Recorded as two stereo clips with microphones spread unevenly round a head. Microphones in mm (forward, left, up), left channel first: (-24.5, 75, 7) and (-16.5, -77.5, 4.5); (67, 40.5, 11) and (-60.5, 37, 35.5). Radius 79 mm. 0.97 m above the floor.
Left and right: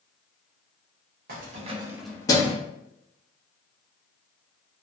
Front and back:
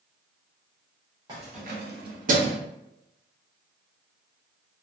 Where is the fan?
No fan in this recording.